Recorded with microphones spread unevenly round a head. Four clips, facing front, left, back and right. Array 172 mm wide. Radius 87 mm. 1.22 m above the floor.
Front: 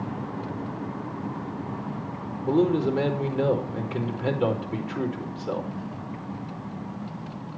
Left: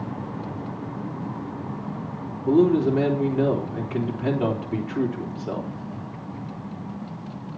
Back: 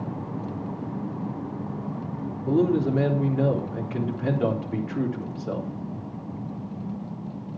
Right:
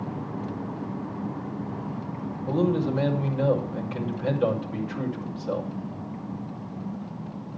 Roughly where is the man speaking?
Left.